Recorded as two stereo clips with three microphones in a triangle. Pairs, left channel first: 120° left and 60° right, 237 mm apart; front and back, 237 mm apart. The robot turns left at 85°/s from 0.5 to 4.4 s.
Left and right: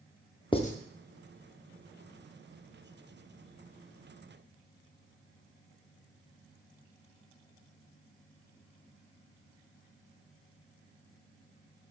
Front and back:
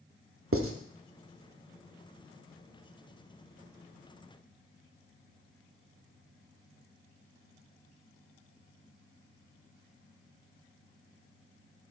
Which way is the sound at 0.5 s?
170° right.